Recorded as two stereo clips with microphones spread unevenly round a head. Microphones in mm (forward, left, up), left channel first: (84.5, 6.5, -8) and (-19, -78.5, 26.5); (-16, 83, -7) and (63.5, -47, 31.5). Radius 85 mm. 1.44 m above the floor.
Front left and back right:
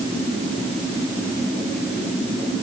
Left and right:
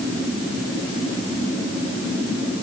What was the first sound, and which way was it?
Only background noise.